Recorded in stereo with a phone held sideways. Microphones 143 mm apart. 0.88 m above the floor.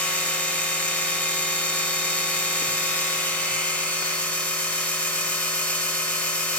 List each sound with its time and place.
0.0 s a machine running: 10° left (ahead or behind), 0.8 m